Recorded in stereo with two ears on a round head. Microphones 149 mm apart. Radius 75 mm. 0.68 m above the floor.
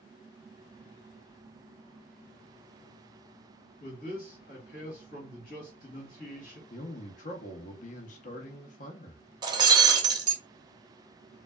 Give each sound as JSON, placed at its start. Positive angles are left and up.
{"t": 3.8, "sound": "a man speaking", "side_deg": 50, "distance_m": 1.7}
{"t": 6.7, "sound": "a man speaking", "side_deg": 45, "distance_m": 0.7}
{"t": 9.4, "sound": "breaking glass", "side_deg": -25, "distance_m": 0.5}